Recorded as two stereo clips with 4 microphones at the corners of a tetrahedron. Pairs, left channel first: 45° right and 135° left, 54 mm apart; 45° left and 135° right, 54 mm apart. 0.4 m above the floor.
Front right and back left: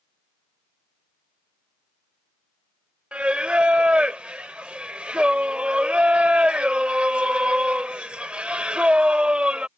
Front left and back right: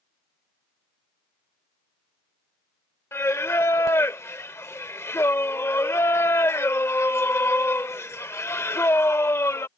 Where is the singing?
70° left.